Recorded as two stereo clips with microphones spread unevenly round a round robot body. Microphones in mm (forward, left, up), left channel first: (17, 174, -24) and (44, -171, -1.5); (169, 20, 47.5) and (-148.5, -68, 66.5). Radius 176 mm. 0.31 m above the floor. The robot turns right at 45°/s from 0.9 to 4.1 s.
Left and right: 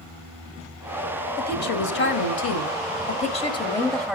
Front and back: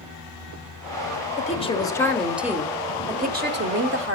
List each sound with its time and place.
1.4 s a woman speaking: 60° left, 1.3 m; by 4.2 s 175° right, 1.3 m